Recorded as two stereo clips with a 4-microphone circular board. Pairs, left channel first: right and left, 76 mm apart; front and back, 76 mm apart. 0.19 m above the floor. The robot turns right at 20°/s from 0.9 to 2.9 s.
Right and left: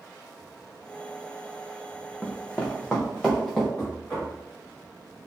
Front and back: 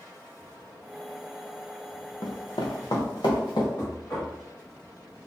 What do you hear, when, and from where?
2.2 s running footsteps: 25° right, 0.6 m; by 3.7 s 10° right, 1.5 m
3.8 s knocking: 35° right, 1.8 m